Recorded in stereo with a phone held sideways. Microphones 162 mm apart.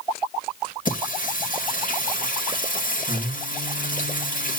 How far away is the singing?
About 1.7 m.